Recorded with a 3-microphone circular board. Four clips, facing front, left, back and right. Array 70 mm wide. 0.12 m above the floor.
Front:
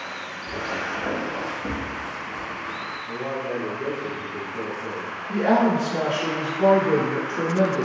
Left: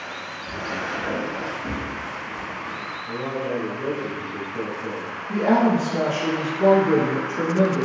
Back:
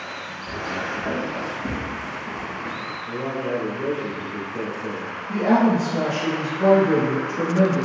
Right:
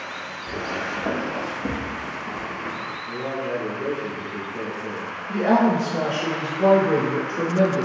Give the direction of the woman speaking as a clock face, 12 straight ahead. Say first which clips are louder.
Even, back 1 dB; 1 o'clock.